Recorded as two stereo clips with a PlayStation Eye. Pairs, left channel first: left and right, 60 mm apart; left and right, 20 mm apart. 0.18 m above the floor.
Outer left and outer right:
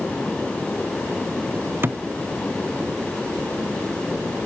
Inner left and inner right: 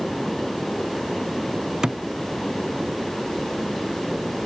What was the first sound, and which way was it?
A thud, 35° right (ahead or behind).